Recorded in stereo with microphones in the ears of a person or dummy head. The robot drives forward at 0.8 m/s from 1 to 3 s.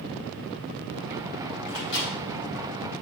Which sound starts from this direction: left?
A microwave, at 1.7 s.